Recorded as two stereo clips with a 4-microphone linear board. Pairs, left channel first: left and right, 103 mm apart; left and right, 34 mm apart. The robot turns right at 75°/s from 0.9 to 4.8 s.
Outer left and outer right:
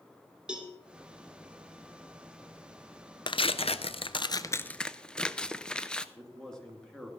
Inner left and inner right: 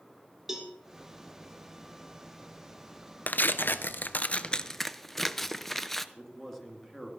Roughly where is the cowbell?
Centre.